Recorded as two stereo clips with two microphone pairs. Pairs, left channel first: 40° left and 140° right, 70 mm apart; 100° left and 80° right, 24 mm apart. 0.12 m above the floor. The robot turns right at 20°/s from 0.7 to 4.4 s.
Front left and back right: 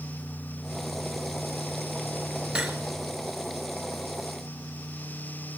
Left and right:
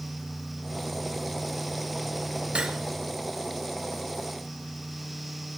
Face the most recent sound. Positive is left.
turn(degrees=-30)